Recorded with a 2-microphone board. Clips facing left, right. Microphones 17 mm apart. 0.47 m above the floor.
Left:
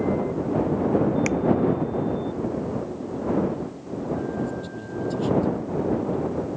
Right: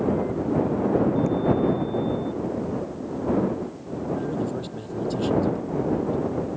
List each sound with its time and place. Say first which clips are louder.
1.3 s tapping: even; 85° left
4.1 s a man speaking: right 2 dB; 10° right (ahead or behind)